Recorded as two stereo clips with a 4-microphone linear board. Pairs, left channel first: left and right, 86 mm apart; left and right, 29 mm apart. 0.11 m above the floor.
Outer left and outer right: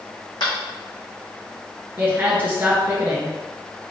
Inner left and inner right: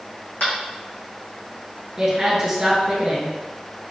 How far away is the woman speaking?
About 1.3 m.